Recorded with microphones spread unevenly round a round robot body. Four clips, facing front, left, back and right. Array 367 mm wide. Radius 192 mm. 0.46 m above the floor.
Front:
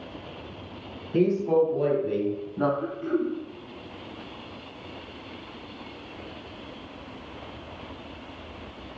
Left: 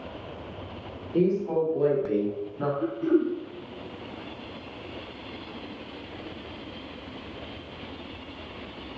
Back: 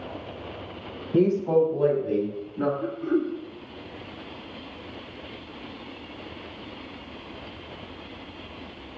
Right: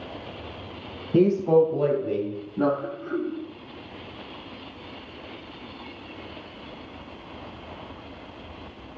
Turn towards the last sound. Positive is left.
turn(degrees=70)